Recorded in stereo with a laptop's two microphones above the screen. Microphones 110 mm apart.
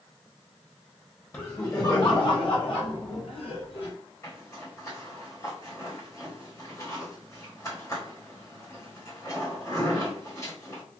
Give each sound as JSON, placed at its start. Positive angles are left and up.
{"t": 1.3, "sound": "laughter", "side_deg": 25, "distance_m": 0.9}
{"t": 4.2, "sound": "a zipper", "side_deg": 30, "distance_m": 1.5}